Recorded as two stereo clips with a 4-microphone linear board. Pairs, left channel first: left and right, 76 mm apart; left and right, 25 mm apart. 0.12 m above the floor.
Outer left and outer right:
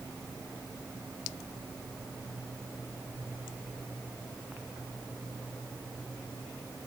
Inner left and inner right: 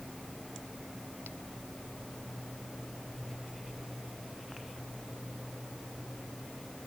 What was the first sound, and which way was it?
Only background noise.